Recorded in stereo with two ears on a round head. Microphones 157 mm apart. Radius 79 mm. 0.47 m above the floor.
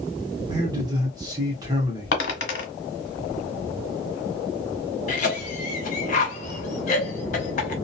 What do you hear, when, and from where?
0.5 s a man speaking: 20° right (ahead or behind), 0.9 m
2.1 s a dropped coin: 65° left (ahead or behind), 1.2 m
5.1 s a cough: 45° left (ahead or behind), 1.2 m